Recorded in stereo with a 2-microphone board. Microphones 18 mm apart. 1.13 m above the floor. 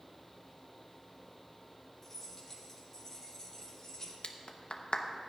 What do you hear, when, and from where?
2.0 s keys jangling: 10° left (ahead or behind), 3 m; by 4.1 s 25° left (ahead or behind), 4 m
4.2 s a clap: 60° left (ahead or behind), 0.8 m